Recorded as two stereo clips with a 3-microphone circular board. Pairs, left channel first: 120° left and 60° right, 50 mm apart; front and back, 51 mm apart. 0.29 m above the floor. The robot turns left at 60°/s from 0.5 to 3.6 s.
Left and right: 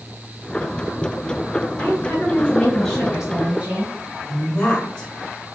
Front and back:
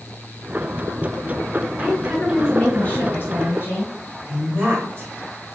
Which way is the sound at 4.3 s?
170° right.